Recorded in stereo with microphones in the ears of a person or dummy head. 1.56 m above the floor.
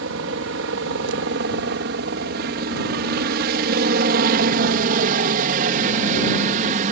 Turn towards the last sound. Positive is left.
turn(degrees=-40)  # may be behind; listen again after turning